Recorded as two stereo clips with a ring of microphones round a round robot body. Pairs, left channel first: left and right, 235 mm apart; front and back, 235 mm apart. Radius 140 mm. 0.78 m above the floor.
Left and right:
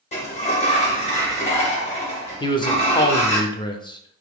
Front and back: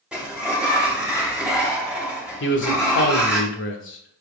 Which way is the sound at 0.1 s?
100° left.